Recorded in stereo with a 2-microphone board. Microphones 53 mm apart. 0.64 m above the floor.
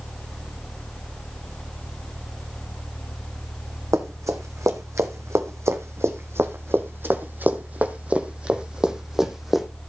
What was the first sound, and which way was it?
Running footsteps, 75° right (ahead or behind).